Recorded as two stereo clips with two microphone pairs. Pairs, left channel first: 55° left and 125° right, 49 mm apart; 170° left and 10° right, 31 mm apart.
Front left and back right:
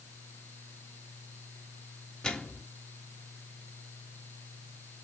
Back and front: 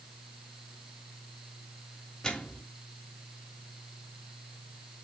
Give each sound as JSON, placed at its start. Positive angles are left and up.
{"t": 2.2, "sound": "a microwave", "azimuth_deg": 115, "distance_m": 1.4}